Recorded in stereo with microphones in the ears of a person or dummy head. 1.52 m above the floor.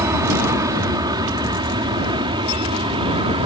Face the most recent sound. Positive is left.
turn(degrees=-30)  # may be behind; listen again after turning